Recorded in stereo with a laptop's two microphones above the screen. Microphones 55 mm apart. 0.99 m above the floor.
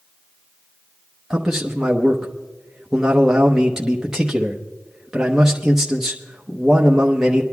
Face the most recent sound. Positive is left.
turn(degrees=-10)  # may be behind; listen again after turning